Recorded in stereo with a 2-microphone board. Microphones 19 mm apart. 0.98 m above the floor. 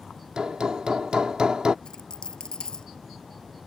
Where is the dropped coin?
50° left (ahead or behind).